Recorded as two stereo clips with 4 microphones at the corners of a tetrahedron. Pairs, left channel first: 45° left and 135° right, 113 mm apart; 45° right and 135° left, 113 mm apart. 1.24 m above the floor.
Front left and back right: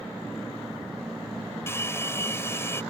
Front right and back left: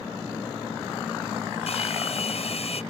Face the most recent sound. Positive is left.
turn(degrees=-25)